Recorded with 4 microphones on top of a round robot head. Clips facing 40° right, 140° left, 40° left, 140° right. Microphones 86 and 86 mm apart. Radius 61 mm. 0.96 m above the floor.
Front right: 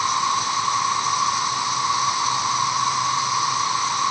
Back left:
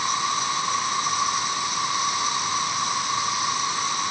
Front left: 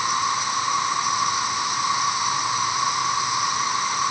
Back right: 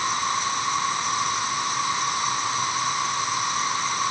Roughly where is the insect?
Ahead right.